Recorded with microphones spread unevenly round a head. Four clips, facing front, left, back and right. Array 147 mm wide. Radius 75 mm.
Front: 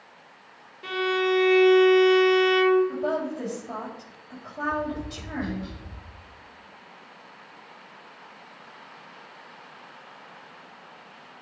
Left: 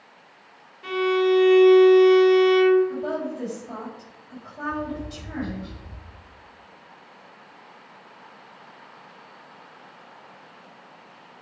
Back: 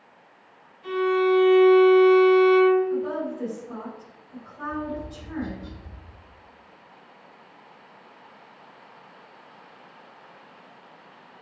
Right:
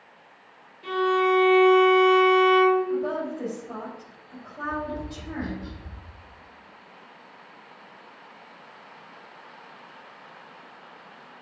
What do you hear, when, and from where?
0.8 s a violin: 15° left, 3.5 m
2.9 s a woman speaking: 5° left, 5.5 m
4.6 s tapping: 5° right, 3.5 m